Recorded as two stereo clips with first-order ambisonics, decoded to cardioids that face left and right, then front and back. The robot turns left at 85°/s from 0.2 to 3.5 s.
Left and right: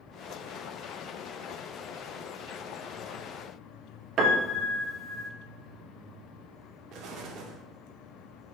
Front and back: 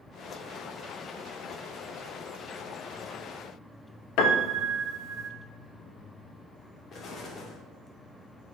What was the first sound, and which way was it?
A piano, 35° right.